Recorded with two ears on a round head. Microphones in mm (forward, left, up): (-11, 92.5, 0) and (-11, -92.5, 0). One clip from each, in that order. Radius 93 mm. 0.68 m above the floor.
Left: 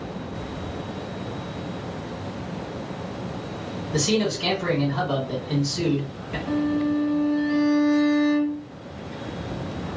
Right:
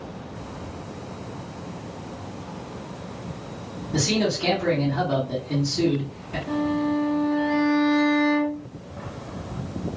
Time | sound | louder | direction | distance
3.9 | a man speaking | even | 55° left (ahead or behind) | 1.6 m
6.5 | a violin | left 1 dB | 50° left (ahead or behind) | 1.0 m